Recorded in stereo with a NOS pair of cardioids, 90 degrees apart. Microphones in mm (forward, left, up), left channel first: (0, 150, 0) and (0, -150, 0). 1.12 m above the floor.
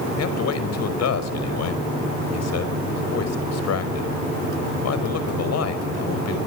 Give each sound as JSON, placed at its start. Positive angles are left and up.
{"t": 0.2, "sound": "a man speaking", "azimuth_deg": 60, "distance_m": 5.5}